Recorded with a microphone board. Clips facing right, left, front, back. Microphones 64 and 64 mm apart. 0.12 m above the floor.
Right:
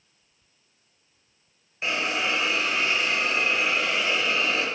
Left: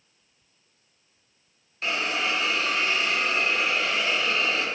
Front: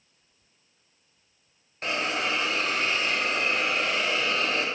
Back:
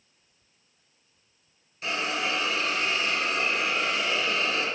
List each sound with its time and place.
1.8 s a hiss: 20° right, 0.8 m